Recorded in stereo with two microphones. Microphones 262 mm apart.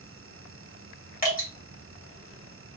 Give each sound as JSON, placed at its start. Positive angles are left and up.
{"t": 1.2, "sound": "dripping", "side_deg": 35, "distance_m": 1.9}